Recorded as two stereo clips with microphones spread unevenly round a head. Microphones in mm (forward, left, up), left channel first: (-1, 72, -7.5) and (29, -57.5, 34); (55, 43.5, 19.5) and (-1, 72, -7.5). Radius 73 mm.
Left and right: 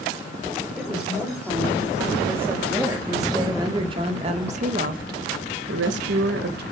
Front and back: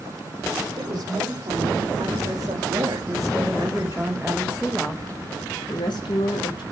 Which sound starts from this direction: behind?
A woman speaking, at 0.8 s.